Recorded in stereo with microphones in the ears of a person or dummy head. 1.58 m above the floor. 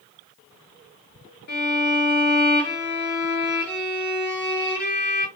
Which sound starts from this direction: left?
A violin, at 1.5 s.